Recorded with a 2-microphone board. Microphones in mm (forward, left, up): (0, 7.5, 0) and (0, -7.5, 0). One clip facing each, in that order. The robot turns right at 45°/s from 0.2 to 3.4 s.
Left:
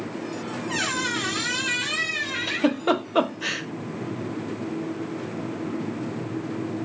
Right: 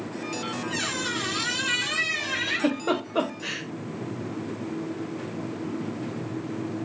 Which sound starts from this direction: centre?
A giggle, at 2.5 s.